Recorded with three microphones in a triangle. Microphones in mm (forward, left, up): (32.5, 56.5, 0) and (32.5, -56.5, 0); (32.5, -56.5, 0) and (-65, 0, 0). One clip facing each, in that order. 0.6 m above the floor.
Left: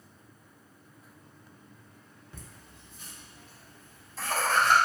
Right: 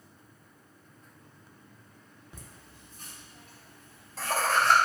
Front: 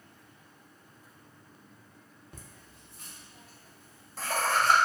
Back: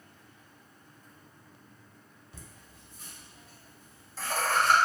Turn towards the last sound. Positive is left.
turn(degrees=-65)